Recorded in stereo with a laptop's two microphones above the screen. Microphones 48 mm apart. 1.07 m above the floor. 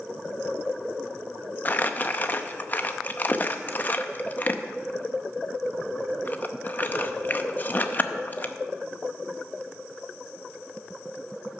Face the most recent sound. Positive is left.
turn(degrees=35)  # may be behind; listen again after turning